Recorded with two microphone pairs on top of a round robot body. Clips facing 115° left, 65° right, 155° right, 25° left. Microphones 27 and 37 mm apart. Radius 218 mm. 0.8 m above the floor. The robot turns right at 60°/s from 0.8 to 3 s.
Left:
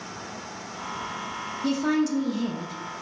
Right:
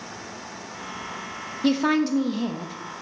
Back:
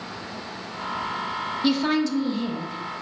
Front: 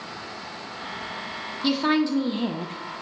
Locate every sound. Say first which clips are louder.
1.6 s a woman speaking: right 3 dB, front 1 dB; 60° right, 0.6 m; by 2.8 s 5° left, 0.6 m